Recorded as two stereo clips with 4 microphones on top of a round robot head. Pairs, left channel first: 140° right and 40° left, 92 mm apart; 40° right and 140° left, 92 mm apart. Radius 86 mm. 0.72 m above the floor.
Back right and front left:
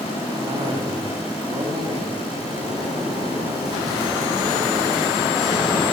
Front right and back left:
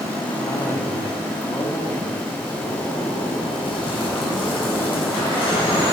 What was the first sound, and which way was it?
A cough, 15° left.